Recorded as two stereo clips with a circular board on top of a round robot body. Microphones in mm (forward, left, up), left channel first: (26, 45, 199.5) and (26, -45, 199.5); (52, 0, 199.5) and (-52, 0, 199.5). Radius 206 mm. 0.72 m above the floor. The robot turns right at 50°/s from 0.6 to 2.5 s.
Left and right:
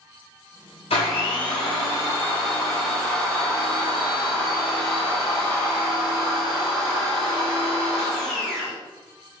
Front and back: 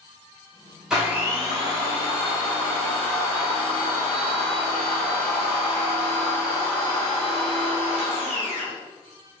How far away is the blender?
About 0.7 m.